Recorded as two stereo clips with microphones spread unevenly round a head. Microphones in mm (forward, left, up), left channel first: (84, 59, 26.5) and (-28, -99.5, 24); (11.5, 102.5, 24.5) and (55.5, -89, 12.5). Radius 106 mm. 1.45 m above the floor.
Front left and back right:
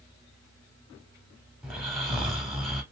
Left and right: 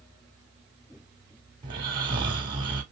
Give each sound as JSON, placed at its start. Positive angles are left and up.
{"t": 1.6, "sound": "snoring", "azimuth_deg": -35, "distance_m": 1.2}